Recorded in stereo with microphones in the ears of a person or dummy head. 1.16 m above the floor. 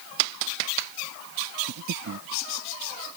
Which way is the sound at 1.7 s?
70° right (ahead or behind).